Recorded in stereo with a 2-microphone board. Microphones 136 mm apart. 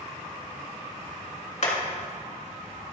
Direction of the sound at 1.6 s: 55° left (ahead or behind).